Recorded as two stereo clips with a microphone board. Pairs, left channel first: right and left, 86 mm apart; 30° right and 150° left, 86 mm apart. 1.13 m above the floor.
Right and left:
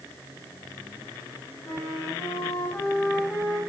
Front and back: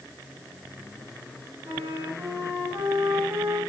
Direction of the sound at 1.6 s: 175° right.